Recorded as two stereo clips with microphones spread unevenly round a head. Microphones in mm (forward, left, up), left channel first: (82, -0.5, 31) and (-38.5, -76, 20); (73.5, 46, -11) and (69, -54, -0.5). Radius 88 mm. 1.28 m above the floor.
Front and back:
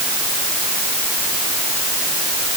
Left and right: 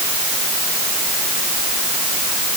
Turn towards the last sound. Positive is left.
No sound to turn to.